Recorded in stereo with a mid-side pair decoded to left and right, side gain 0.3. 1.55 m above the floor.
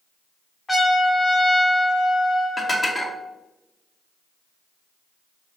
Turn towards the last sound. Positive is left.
turn(degrees=40)